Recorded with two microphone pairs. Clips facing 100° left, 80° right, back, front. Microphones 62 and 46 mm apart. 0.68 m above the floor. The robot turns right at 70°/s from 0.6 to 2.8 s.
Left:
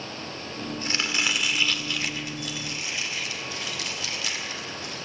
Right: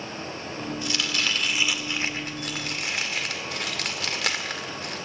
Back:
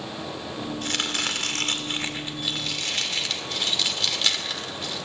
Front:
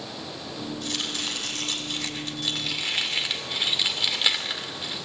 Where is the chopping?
145° left, 2 m; by 5.0 s 75° right, 2 m.